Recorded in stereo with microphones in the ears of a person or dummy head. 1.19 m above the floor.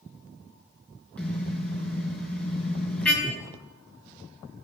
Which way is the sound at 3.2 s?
20° left (ahead or behind).